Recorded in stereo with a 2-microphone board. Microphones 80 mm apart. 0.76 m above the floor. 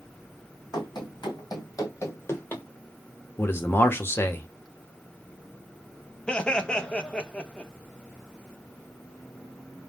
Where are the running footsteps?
65° left (ahead or behind), 1.8 m; by 2.6 s 20° left (ahead or behind), 1.0 m.